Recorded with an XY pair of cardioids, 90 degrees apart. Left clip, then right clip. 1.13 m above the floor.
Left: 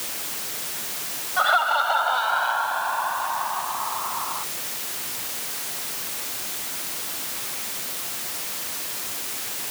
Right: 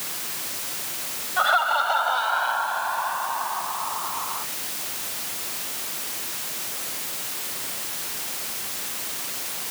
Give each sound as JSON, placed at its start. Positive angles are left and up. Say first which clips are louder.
{"t": 1.4, "sound": "laughter", "louder": "left 1 dB", "azimuth_deg": 0}